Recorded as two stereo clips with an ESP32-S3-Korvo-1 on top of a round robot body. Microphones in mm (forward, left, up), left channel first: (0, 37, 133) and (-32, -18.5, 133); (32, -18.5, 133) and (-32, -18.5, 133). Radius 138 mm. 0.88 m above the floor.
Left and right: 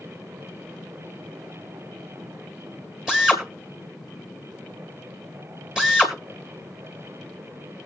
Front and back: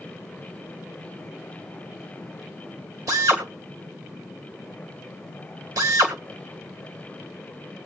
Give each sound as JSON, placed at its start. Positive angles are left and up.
{"t": 3.1, "sound": "a drill", "azimuth_deg": 160, "distance_m": 2.5}